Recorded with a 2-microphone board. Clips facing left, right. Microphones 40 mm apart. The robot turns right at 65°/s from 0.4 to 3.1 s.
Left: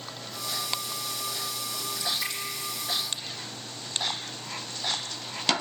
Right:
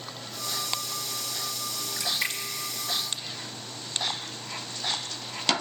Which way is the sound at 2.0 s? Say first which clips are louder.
Right 3 dB; 70° right (ahead or behind).